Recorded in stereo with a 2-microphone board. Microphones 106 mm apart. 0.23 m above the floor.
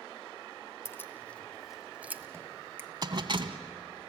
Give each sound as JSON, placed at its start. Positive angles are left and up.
{"t": 0.8, "sound": "keys jangling", "side_deg": 25, "distance_m": 1.3}
{"t": 2.8, "sound": "a finger snap", "side_deg": -20, "distance_m": 1.1}